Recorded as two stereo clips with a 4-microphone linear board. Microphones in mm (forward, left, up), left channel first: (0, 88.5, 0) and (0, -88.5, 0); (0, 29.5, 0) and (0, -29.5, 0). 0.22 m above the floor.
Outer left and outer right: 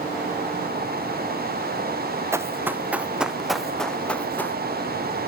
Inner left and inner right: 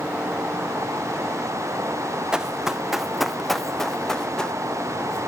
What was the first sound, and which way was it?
Running footsteps, 15° right (ahead or behind).